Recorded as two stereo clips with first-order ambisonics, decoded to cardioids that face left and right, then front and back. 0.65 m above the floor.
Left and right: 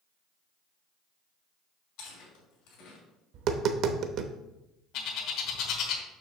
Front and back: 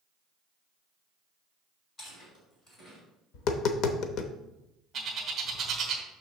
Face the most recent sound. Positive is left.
turn(degrees=120)